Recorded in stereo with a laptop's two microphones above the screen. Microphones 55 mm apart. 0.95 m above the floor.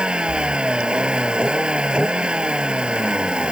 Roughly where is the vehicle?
Centre.